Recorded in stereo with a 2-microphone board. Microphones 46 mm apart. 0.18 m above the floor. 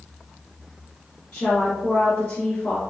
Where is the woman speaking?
35° left (ahead or behind), 1.4 m.